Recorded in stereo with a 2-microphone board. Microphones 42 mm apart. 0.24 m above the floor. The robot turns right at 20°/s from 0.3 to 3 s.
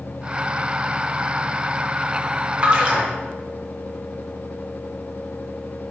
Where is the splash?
30° right (ahead or behind), 1.8 m; by 3.1 s 25° right (ahead or behind), 1.8 m.